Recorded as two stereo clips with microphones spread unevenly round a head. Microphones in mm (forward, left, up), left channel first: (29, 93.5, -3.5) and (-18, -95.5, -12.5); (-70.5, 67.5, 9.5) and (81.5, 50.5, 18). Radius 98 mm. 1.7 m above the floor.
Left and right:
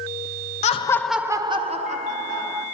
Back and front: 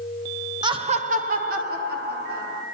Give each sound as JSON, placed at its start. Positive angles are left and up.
{"t": 0.6, "sound": "laughter", "azimuth_deg": 40, "distance_m": 0.6}